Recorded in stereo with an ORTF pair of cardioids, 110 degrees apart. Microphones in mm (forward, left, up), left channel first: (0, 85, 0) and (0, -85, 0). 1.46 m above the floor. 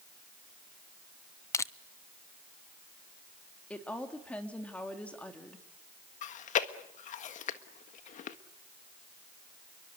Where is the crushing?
20° left, 0.7 m.